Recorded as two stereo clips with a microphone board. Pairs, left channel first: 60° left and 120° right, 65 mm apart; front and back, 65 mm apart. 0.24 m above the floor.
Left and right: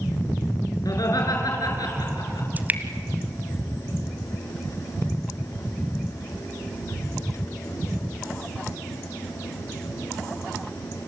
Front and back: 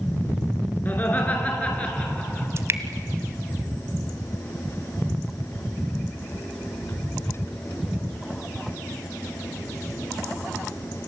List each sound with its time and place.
0.8 s laughter: 60° left, 4 m; by 2.5 s 70° left, 5 m
2.6 s dripping: 170° right, 1.3 m